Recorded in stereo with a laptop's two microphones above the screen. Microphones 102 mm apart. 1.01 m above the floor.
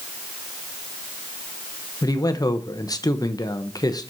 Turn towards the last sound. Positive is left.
turn(degrees=35)  # may be behind; listen again after turning